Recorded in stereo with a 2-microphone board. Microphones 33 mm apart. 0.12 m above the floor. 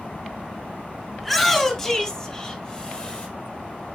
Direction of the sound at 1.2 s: 5° left (ahead or behind).